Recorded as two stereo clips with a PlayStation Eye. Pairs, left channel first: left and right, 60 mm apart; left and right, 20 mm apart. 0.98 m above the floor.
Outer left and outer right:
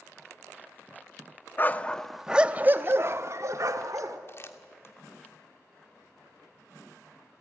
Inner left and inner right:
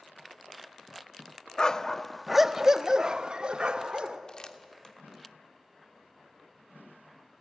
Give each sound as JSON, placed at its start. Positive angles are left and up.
{"t": 1.6, "sound": "a dog barking", "side_deg": 30, "distance_m": 0.6}
{"t": 4.3, "sound": "crumpling", "side_deg": 40, "distance_m": 1.4}